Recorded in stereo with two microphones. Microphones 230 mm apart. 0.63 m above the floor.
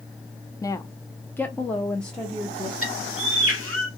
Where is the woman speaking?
15° left (ahead or behind), 0.5 m; by 2.7 s centre (ahead or behind), 1.1 m.